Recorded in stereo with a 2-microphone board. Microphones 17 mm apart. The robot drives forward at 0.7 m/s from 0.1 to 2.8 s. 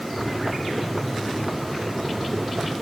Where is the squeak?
I don't hear a squeak.